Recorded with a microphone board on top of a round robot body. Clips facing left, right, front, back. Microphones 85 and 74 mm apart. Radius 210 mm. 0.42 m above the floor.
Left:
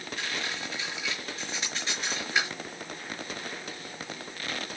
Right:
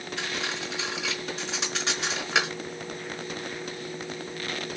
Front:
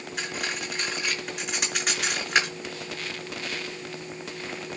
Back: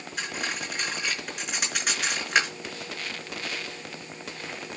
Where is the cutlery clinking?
90° right, 5 m.